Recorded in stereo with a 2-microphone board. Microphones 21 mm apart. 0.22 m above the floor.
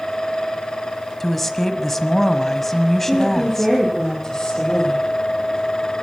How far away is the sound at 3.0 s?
About 7 m.